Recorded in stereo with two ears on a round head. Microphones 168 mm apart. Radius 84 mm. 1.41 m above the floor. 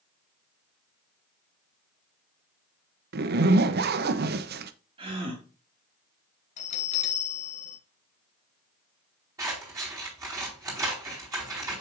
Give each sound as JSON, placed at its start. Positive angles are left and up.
{"t": 3.1, "sound": "a zipper", "side_deg": -55, "distance_m": 0.7}
{"t": 5.0, "sound": "a gasp", "side_deg": -30, "distance_m": 2.0}
{"t": 6.6, "sound": "a bell", "side_deg": 40, "distance_m": 1.3}
{"t": 9.4, "sound": "scissors", "side_deg": -15, "distance_m": 4.5}